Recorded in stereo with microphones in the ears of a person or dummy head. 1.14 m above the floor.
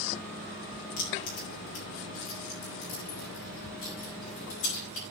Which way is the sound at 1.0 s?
35° left (ahead or behind).